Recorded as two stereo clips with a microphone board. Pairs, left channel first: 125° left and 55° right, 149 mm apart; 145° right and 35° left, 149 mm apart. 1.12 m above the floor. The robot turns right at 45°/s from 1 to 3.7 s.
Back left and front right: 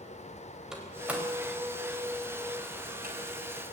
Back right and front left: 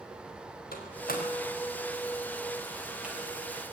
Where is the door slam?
140° right, 4.5 m; by 3.2 s 45° right, 4.5 m.